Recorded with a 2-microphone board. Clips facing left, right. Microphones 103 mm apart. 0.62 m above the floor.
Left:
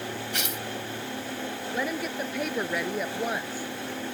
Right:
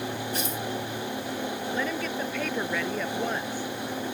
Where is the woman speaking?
10° left (ahead or behind).